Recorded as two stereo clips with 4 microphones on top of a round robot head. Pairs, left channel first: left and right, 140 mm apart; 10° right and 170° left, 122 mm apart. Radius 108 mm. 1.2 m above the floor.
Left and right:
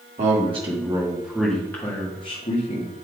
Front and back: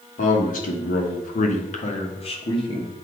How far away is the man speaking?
About 1.5 m.